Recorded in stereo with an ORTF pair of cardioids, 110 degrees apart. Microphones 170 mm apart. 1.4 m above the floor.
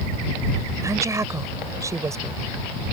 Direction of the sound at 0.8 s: 20° right.